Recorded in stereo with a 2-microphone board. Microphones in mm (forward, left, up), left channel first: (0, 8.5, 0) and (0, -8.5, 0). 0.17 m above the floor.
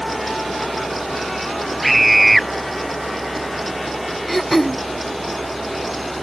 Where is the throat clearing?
10° left (ahead or behind).